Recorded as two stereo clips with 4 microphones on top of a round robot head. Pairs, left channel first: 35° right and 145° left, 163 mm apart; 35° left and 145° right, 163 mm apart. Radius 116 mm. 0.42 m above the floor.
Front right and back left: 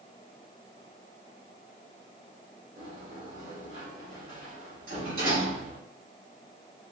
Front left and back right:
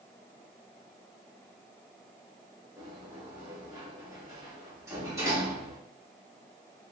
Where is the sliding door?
145° left, 2.5 m.